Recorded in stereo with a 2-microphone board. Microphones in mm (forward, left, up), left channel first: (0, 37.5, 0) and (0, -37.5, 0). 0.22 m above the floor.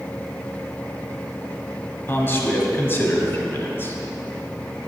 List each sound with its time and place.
2.1 s a man speaking: 30° left (ahead or behind), 1.3 m